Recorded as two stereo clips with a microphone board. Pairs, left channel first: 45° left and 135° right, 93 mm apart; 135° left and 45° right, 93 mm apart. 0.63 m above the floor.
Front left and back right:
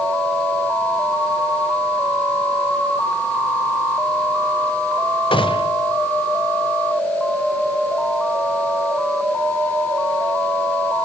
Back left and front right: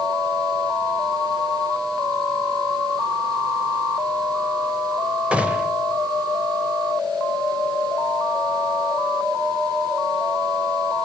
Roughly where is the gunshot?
Ahead left.